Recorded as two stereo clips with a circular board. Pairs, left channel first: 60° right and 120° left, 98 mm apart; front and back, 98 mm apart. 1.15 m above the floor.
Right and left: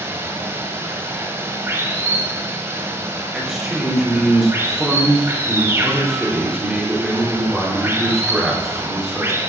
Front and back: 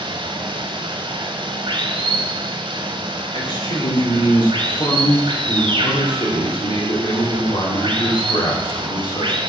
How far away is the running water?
About 1.5 m.